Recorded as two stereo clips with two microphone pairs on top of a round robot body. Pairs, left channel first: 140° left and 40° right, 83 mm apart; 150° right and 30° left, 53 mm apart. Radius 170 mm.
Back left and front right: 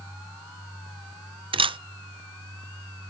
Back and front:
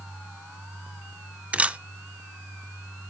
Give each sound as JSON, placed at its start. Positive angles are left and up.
{"t": 1.5, "sound": "a camera shutter", "azimuth_deg": -35, "distance_m": 0.7}